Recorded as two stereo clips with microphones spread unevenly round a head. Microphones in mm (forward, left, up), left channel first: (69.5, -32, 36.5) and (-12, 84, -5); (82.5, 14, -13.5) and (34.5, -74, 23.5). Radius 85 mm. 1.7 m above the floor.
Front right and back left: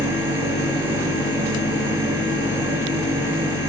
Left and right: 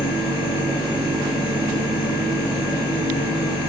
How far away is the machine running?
About 1.5 m.